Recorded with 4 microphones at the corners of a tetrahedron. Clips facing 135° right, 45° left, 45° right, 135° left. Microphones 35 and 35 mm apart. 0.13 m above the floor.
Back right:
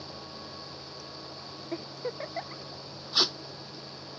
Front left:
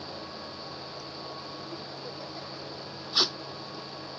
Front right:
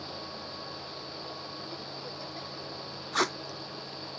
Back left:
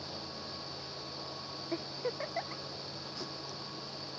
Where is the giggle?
175° right.